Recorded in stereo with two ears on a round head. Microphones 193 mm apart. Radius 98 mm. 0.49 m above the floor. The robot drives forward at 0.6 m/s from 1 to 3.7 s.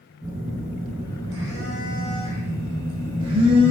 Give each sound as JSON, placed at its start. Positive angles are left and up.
{"t": 0.2, "sound": "a phone buzzing", "side_deg": -15, "distance_m": 3.0}